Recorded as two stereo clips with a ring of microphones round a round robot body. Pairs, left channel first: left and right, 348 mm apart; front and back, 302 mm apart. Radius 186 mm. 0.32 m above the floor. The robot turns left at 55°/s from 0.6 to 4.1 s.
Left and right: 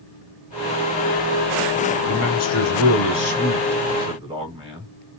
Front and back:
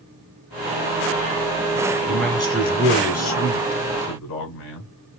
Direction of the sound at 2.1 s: 95° left.